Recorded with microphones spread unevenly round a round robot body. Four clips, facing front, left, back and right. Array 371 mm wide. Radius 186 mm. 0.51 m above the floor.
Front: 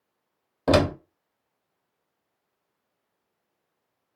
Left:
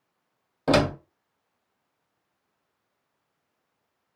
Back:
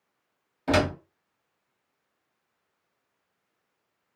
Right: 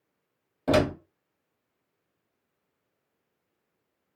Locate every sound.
0.7 s a door slam: 5° right, 0.8 m